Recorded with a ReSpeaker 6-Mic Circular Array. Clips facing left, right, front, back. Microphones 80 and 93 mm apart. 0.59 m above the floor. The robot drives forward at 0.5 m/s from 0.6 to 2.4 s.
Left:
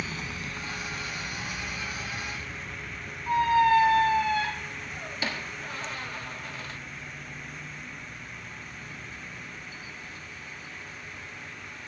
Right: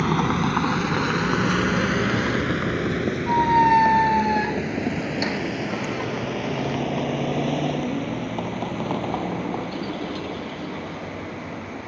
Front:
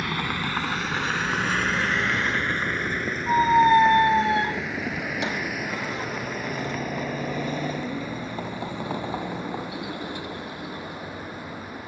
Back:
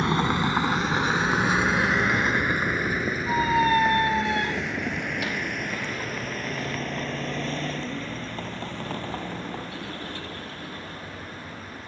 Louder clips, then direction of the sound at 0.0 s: Right 15 dB, back 5 dB; 120° right.